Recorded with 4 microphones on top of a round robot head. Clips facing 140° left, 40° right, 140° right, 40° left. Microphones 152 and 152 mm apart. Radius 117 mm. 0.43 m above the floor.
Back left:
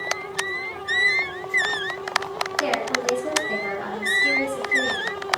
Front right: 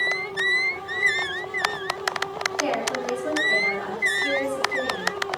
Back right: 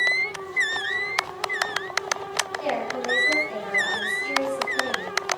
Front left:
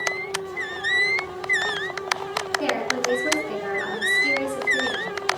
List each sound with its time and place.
2.6 s a woman speaking: 75° left, 6.5 m